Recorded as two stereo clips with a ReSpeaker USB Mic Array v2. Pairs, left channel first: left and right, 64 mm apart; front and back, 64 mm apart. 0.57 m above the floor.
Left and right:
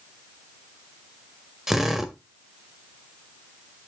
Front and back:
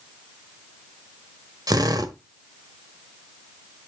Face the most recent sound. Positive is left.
turn(degrees=-175)